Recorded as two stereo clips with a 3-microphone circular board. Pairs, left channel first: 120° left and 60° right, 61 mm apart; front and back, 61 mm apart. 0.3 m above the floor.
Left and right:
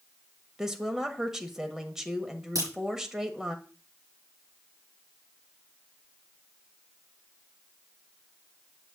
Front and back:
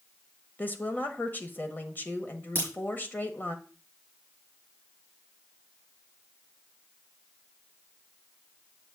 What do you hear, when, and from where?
0.6 s a woman speaking: 15° left, 1.1 m
2.5 s a crack: 50° right, 6 m